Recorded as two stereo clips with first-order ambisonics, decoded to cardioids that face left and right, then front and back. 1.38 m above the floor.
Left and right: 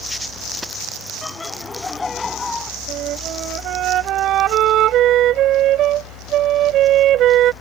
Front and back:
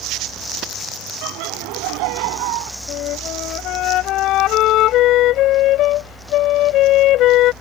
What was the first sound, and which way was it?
Laughter, 165° left.